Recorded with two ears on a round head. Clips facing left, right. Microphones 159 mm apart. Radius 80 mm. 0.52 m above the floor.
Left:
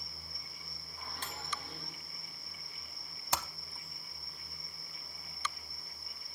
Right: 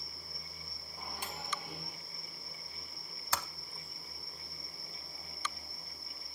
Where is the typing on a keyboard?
15° left (ahead or behind), 0.7 m.